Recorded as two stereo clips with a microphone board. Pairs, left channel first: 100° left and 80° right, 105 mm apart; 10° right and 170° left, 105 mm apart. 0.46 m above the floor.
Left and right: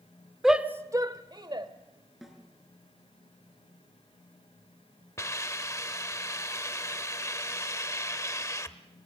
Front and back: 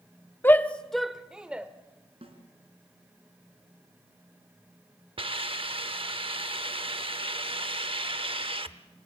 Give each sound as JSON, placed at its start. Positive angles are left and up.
{"t": 0.4, "sound": "a shout", "azimuth_deg": 5, "distance_m": 0.7}
{"t": 2.2, "sound": "a snare drum", "azimuth_deg": -170, "distance_m": 3.5}
{"t": 5.2, "sound": "a hiss", "azimuth_deg": 155, "distance_m": 0.8}